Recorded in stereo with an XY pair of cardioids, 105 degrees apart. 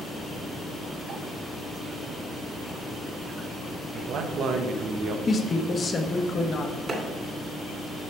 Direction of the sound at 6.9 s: 35° right.